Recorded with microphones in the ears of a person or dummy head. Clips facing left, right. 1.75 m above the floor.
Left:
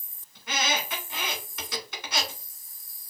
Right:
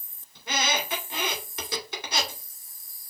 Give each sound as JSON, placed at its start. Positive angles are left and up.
{"t": 0.3, "sound": "a squeak", "side_deg": -35, "distance_m": 2.5}